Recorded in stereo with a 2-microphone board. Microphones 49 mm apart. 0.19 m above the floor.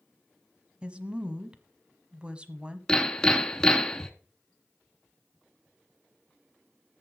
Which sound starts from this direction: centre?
Hammering, at 2.9 s.